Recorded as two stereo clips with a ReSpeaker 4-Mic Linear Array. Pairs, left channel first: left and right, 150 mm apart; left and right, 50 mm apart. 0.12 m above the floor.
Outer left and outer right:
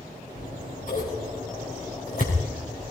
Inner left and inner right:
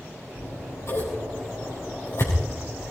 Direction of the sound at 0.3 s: 60° left (ahead or behind).